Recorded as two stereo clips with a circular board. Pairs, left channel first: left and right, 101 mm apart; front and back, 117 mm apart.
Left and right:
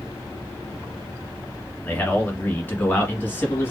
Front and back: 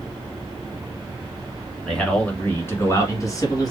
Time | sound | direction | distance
1.9 | a man speaking | 70° left | 1.6 m